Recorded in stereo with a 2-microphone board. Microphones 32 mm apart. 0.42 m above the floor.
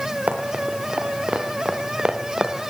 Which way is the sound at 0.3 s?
45° right (ahead or behind).